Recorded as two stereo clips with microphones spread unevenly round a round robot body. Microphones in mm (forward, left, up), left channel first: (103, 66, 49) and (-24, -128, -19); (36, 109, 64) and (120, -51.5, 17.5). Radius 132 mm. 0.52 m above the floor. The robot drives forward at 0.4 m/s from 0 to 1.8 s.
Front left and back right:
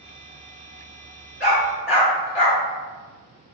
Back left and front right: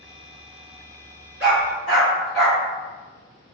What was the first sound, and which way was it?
A dog barking, 115° left.